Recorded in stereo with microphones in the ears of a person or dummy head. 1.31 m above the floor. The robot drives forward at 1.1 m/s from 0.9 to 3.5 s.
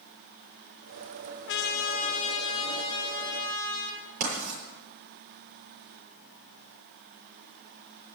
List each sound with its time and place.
1.5 s a trumpet: 65° left (ahead or behind), 1.0 m; by 4.0 s 20° left (ahead or behind), 3 m
4.2 s writing: 60° right (ahead or behind), 8.5 m